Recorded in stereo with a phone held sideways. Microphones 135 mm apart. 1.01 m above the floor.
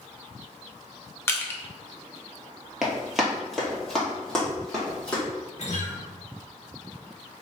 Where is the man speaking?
I don't hear a man speaking.